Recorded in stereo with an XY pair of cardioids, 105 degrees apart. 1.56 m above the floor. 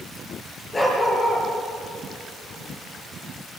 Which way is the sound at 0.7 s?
20° left.